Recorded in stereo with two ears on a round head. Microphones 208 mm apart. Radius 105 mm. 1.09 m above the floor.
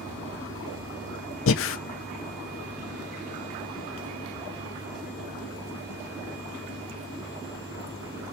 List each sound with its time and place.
1.5 s breathing: 60° left (ahead or behind), 0.9 m